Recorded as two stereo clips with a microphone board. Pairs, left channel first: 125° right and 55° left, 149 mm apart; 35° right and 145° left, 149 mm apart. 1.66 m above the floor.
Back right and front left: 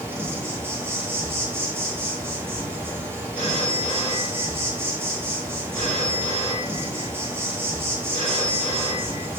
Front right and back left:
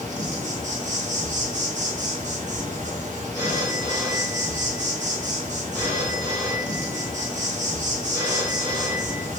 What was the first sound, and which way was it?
An insect, 130° left.